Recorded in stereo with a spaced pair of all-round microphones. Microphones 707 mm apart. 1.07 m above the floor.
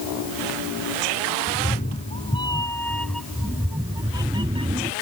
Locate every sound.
1.5 s a cat meowing: 15° left (ahead or behind); by 4.9 s 10° right (ahead or behind)